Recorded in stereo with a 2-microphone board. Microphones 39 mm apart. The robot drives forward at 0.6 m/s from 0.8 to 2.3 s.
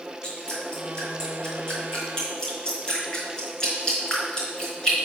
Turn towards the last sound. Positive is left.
turn(degrees=20)  # may be behind; listen again after turning